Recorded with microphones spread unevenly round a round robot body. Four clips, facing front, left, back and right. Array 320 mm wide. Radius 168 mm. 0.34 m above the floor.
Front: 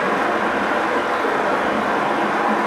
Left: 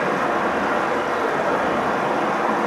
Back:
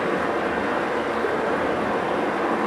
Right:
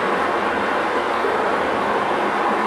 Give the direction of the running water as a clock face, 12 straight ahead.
11 o'clock.